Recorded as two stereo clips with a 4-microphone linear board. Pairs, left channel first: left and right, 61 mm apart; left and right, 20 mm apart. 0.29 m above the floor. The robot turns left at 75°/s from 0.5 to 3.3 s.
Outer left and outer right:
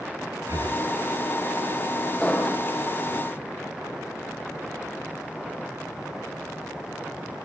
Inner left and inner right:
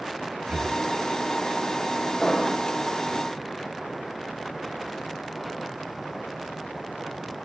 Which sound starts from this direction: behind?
An explosion, at 2.2 s.